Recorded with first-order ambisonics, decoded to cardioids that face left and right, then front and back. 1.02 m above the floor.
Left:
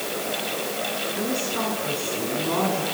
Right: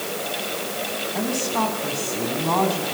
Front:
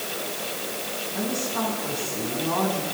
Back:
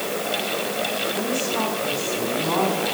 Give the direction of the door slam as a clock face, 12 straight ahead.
I don't hear a door slam.